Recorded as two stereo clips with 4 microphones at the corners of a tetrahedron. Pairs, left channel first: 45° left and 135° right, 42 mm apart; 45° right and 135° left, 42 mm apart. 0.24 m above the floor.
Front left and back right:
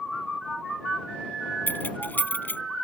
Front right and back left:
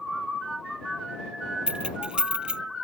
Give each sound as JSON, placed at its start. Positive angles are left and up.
{"t": 1.7, "sound": "keys jangling", "azimuth_deg": 75}